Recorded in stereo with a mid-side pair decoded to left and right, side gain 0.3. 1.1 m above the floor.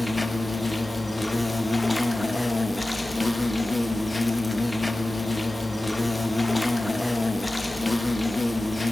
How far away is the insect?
About 0.8 m.